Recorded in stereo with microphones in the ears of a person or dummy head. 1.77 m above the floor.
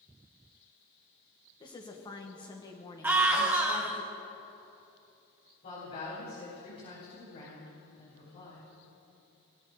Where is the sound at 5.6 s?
45° left (ahead or behind), 6 m.